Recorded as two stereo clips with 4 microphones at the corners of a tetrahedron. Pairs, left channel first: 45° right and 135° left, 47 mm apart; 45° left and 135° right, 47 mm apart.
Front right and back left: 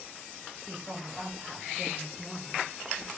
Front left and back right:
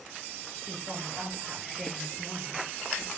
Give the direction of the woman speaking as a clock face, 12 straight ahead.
5 o'clock.